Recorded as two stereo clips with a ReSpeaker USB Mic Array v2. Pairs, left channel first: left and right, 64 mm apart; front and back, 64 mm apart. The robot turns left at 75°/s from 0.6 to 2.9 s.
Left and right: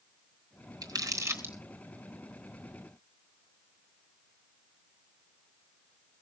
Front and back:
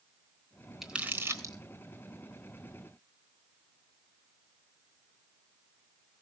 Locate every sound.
0.8 s crumpling: 95° right, 3.5 m; by 1.5 s 150° right, 3.5 m